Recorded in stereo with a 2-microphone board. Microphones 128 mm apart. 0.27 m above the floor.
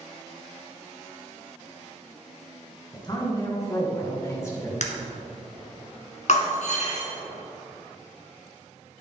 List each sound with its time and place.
2.9 s a man speaking: 35° left (ahead or behind), 2.5 m; by 4.7 s 20° left (ahead or behind), 4 m
4.8 s breaking glass: 70° left (ahead or behind), 1.4 m
6.3 s breaking glass: 70° left (ahead or behind), 1.7 m